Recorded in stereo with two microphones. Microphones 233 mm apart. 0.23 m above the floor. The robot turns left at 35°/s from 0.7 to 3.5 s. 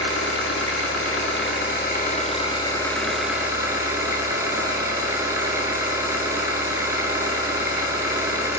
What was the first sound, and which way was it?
An engine running, 85° left.